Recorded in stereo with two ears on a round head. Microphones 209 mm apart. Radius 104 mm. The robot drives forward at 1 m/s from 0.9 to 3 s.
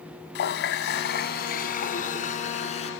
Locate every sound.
0.3 s a running tap: 55° left (ahead or behind); by 2.9 s 30° left (ahead or behind)